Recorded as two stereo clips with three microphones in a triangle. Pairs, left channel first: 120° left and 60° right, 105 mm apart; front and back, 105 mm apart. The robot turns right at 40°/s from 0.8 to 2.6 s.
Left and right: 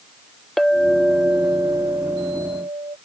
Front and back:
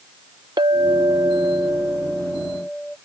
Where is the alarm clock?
No alarm clock in this recording.